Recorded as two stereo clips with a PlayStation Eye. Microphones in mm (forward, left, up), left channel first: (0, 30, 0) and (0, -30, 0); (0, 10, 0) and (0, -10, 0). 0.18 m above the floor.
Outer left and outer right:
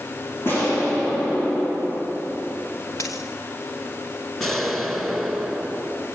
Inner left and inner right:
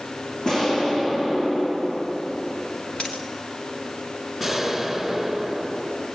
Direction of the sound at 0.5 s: 40° left (ahead or behind).